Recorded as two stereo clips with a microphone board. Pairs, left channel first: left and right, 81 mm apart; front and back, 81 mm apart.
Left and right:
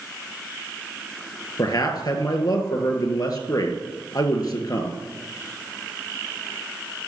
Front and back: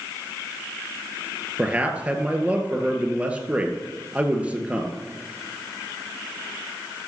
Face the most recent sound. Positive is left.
turn(degrees=110)